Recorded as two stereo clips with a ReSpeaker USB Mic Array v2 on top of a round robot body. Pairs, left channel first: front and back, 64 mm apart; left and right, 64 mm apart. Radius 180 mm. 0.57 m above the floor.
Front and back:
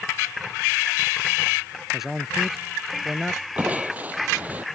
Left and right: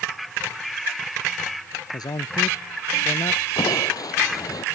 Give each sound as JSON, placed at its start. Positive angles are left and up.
{"t": 1.9, "sound": "a man speaking", "azimuth_deg": 95}
{"t": 3.6, "sound": "crushing", "azimuth_deg": 115}